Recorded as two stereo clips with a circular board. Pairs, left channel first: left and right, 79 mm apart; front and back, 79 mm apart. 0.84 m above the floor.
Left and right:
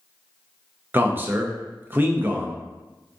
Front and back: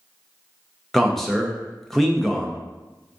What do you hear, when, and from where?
0.9 s a man speaking: 85° right, 0.5 m